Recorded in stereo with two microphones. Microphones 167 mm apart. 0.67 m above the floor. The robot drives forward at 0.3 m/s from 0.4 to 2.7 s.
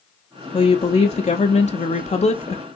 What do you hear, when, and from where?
0.5 s a woman speaking: 35° left (ahead or behind), 0.8 m; by 2.6 s 40° left (ahead or behind), 0.7 m